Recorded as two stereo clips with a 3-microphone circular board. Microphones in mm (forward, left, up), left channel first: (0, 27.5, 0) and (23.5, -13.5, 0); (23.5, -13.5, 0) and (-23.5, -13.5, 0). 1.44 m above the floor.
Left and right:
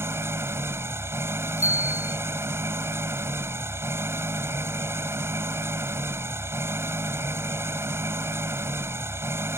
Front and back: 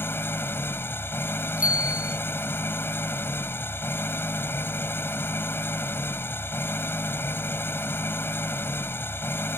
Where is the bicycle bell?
115° left.